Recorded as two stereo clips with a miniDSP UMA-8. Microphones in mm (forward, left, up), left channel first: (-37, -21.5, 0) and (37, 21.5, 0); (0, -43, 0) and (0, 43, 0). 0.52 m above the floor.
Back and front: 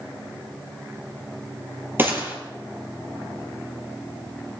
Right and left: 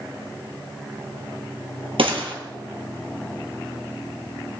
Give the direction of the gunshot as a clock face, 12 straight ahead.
9 o'clock.